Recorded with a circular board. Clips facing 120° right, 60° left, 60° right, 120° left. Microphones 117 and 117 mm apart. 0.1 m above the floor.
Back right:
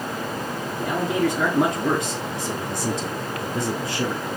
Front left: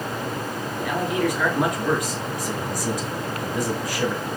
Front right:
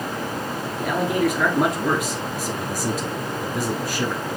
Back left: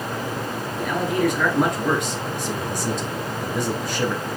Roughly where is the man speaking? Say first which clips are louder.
Back right 1 dB, front right 1 dB; behind right.